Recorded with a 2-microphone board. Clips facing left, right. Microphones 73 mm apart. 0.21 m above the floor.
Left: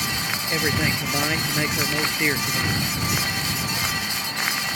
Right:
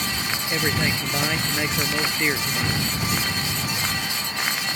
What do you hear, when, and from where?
0.5 s a man speaking: centre (ahead or behind)